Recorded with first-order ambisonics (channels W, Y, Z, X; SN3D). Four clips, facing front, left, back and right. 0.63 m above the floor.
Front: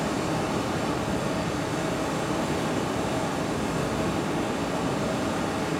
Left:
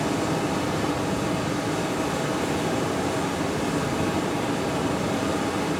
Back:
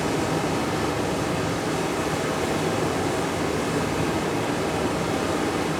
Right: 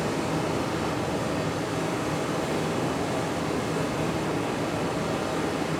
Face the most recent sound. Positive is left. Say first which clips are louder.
# left 2 dB, back 3 dB
turn(degrees=160)